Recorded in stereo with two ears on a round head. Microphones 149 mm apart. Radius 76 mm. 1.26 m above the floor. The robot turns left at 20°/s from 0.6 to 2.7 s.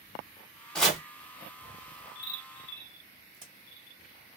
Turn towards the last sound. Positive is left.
turn(degrees=-25)  # may be behind; listen again after turning